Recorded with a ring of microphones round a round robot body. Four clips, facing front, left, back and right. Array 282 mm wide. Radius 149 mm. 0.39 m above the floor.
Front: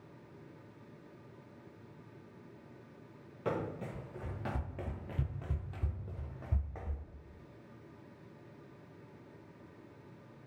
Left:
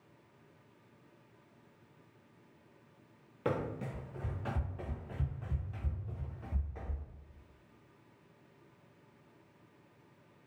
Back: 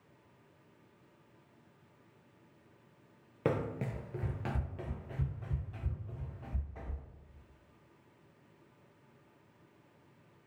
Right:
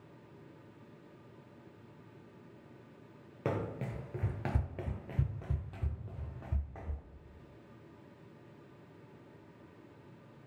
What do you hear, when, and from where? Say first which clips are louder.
3.5 s running footsteps: left 1 dB, back 3 dB; 165° right, 0.7 m; by 7.0 s 35° right, 1.5 m